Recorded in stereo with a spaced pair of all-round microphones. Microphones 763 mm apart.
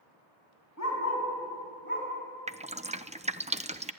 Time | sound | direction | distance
0.8 | a dog barking | 20° left (ahead or behind) | 6.5 m
2.5 | dripping | 10° right (ahead or behind) | 0.5 m